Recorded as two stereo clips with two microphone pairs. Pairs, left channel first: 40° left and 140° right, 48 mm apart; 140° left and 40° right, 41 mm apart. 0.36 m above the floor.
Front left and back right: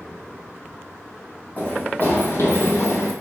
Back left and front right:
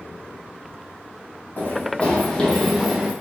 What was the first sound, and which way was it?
Running footsteps, 95° left.